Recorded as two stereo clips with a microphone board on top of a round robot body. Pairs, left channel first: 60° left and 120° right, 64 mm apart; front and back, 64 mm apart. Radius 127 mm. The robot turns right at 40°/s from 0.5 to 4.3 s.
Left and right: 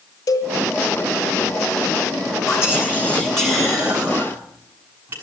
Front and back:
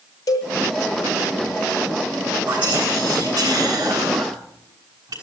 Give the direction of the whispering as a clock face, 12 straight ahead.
8 o'clock.